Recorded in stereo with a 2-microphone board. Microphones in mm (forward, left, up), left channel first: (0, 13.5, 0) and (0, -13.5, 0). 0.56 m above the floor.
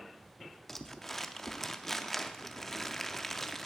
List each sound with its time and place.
0.7 s crumpling: 10° left (ahead or behind), 0.6 m